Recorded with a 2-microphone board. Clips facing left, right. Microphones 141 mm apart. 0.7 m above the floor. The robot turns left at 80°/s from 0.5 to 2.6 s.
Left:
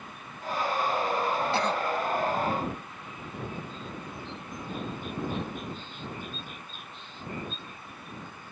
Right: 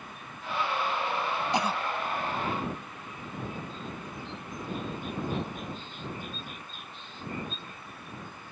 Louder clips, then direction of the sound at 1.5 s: Left 1 dB; 20° right (ahead or behind).